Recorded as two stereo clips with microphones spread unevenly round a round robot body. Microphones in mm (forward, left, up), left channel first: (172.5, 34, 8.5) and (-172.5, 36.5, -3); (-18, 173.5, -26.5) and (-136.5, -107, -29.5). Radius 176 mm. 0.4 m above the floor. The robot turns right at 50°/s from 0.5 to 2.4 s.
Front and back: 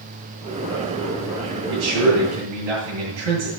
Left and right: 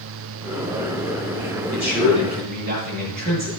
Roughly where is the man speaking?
Behind left.